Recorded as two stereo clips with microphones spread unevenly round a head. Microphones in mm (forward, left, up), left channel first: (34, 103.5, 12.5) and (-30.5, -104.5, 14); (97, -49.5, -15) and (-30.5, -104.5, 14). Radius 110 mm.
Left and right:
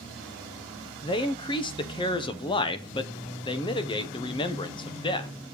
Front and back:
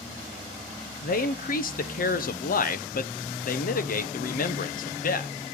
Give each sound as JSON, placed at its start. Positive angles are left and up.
{"t": 1.0, "sound": "a man speaking", "azimuth_deg": 5, "distance_m": 0.9}